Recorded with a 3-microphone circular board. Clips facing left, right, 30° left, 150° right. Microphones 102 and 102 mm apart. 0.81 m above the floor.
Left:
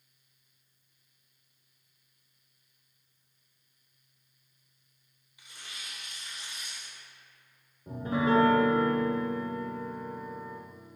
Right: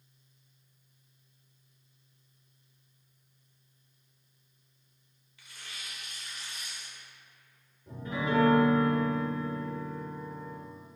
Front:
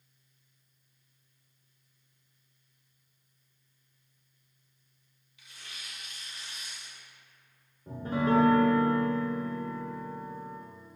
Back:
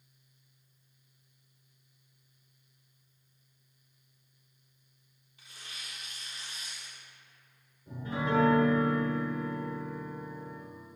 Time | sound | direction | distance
5.4 | tearing paper | 160° left | 0.8 m
7.9 | a piano | 55° left | 0.6 m